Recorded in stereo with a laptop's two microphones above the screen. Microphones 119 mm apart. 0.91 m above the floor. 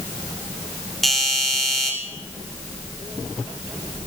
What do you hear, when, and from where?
1.0 s a doorbell: centre (ahead or behind), 3.5 m